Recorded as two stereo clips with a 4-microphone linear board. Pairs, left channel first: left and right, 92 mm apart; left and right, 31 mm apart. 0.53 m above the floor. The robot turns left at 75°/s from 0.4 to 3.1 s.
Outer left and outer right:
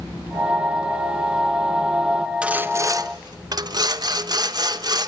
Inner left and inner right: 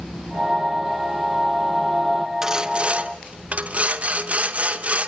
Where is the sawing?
15° right, 0.9 m; by 5.1 s 70° right, 0.9 m.